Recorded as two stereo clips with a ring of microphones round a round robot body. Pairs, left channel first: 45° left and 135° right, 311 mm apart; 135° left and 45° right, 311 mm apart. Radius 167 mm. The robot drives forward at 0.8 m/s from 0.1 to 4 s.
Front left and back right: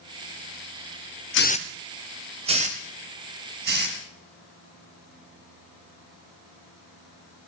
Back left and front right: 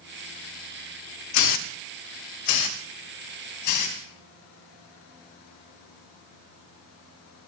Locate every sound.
1.3 s a hiss: 95° left, 0.5 m; by 4.0 s 165° left, 2 m